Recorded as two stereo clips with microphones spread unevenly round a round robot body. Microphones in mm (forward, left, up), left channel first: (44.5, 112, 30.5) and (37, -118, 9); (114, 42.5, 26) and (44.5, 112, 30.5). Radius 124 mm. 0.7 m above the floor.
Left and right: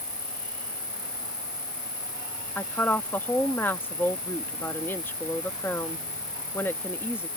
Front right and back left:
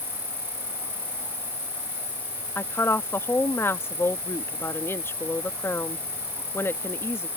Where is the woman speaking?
5° left.